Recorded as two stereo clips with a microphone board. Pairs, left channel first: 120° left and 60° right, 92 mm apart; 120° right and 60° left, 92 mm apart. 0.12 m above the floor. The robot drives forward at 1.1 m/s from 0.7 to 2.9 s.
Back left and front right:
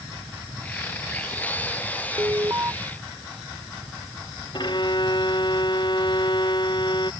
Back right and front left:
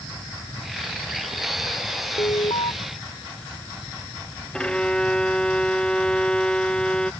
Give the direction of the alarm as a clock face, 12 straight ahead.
4 o'clock.